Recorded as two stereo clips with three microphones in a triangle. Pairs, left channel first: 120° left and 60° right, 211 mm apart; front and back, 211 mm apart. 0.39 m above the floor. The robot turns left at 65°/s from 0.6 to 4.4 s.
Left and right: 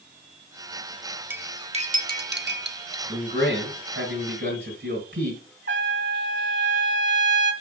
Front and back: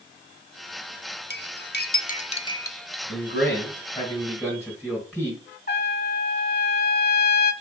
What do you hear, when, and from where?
1.3 s cutlery clinking: 15° left, 0.7 m; by 3.0 s 95° right, 0.7 m
3.1 s a man speaking: 5° right, 3 m; by 5.4 s 90° right, 3 m
5.7 s a trumpet: 35° right, 1.1 m